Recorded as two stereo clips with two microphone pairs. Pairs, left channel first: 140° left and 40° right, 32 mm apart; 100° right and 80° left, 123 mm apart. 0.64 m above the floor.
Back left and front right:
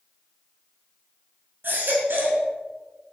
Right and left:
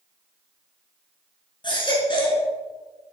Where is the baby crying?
50° right, 4.5 m.